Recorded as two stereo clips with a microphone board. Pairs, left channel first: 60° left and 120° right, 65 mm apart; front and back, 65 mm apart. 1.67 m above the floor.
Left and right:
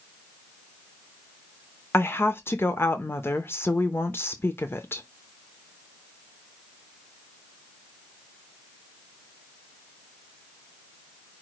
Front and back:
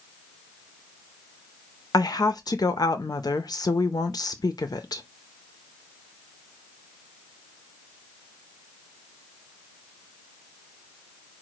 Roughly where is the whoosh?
I don't hear a whoosh.